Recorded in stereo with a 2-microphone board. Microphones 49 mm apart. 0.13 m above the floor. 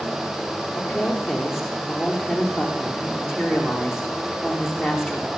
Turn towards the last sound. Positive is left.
turn(degrees=-5)  # may be behind; listen again after turning